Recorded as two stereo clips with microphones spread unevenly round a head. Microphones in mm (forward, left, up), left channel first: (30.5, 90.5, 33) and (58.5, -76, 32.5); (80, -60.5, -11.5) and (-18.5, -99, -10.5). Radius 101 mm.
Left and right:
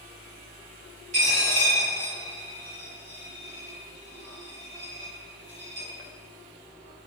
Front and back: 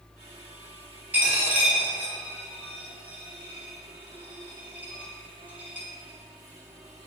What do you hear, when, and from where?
1.1 s a dropped coin: 95° right, 0.8 m